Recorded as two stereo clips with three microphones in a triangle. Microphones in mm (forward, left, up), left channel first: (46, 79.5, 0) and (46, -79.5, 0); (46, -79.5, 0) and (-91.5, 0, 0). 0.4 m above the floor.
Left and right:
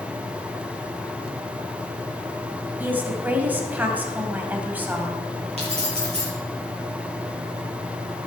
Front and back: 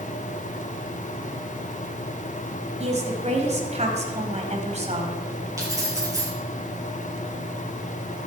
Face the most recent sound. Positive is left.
turn(degrees=-140)